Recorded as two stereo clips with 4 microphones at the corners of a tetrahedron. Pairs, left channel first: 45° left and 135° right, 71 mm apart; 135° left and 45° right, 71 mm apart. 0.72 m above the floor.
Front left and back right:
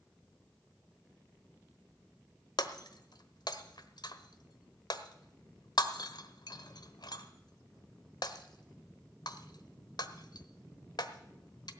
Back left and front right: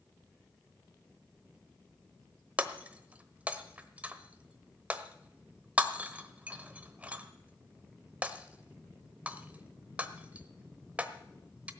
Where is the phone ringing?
I don't hear a phone ringing.